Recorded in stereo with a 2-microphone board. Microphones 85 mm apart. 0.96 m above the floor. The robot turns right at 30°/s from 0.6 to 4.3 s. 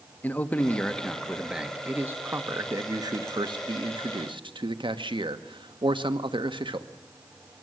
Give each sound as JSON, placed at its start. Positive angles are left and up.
{"t": 0.2, "sound": "a man speaking", "azimuth_deg": 160, "distance_m": 1.2}